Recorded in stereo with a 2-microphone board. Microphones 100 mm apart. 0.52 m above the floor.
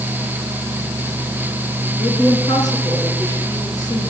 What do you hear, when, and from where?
2.0 s a woman speaking: 45° left (ahead or behind), 7.5 m; by 4.1 s 40° left (ahead or behind), 9.5 m